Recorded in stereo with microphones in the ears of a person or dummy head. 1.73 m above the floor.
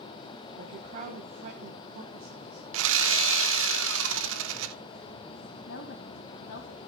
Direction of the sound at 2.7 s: 80° right.